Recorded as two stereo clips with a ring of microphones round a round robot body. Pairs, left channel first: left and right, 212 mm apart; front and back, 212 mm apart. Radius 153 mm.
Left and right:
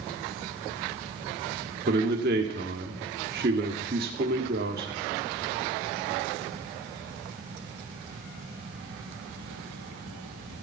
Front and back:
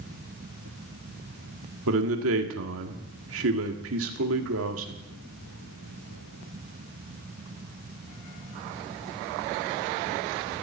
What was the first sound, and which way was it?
A man speaking, 145° right.